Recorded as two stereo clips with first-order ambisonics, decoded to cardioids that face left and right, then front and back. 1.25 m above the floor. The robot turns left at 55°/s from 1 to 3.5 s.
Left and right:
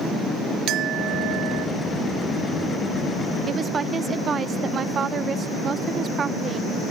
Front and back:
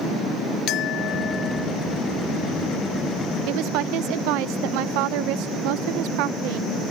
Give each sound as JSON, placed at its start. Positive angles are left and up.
{"t": 0.7, "sound": "a clink", "azimuth_deg": -45}
{"t": 3.5, "sound": "a woman speaking", "azimuth_deg": -155}